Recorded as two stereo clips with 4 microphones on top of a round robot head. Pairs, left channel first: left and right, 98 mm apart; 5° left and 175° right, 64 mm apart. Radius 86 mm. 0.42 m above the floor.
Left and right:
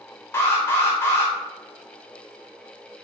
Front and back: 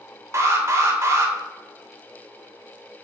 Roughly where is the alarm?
Behind left.